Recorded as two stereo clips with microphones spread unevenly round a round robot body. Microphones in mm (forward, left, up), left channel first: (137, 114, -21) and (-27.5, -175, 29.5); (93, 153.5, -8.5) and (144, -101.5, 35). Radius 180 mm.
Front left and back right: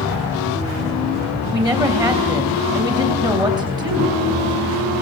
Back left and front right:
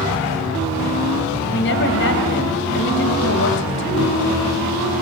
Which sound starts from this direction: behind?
A woman speaking, at 1.5 s.